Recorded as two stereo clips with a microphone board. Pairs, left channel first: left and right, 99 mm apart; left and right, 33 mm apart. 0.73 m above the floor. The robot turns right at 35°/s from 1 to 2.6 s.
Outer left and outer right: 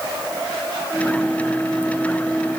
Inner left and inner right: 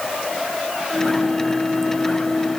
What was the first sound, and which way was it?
Only background noise.